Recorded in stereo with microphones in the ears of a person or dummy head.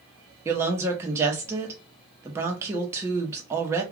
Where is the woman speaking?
15° right (ahead or behind), 0.8 m.